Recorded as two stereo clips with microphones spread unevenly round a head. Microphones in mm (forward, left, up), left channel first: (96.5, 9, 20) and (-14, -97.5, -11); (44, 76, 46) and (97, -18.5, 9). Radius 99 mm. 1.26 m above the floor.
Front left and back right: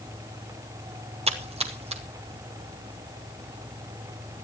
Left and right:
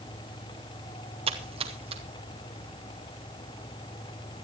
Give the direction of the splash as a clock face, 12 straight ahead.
3 o'clock.